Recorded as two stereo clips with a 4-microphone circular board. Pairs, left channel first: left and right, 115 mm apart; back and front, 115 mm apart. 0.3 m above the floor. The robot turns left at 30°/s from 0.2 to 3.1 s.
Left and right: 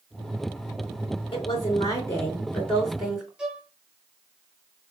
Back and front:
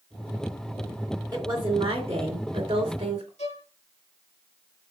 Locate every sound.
1.3 s a woman speaking: 50° left, 3 m; by 3.3 s 5° right, 3 m
3.4 s a violin: 170° right, 2.5 m